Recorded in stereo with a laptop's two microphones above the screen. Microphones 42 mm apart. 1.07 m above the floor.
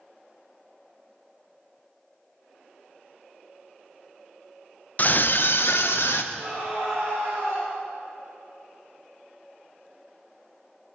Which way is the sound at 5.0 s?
35° left (ahead or behind).